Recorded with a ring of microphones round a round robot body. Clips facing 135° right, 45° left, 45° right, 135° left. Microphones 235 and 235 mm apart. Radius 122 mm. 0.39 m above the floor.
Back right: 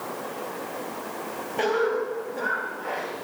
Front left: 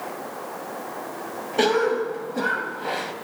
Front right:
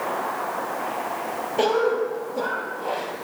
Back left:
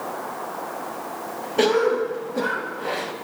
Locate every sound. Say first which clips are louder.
1.6 s a cough: front left 3 dB, back left 2 dB; 75° left, 2.5 m